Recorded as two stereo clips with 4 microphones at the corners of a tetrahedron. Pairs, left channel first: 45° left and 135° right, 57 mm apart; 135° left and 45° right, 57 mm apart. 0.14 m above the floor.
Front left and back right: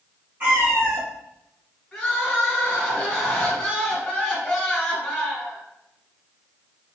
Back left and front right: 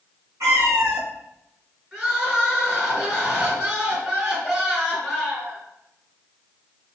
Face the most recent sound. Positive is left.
turn(degrees=0)